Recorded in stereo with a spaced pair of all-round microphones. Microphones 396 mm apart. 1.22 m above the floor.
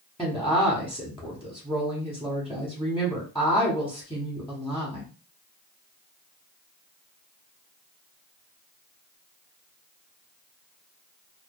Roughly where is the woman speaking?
Centre.